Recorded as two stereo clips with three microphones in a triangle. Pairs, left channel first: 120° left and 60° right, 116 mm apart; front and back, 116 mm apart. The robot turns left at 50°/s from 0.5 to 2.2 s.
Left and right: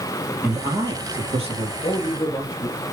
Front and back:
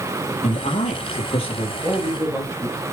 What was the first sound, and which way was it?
A man speaking, 10° left.